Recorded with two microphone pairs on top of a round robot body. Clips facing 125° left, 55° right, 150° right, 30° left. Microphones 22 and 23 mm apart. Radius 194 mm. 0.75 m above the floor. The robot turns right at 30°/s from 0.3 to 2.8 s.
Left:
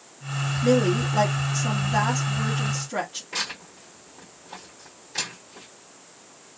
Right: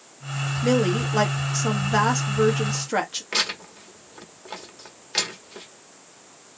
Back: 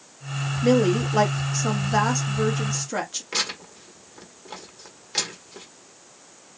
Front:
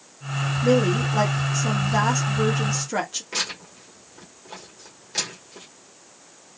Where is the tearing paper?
80° right, 1.6 m.